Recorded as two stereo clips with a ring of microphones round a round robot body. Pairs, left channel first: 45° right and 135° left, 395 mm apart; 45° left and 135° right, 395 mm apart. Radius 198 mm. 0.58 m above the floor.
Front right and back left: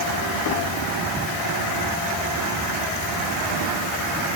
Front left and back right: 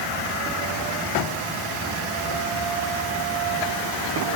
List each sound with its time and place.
Only background noise.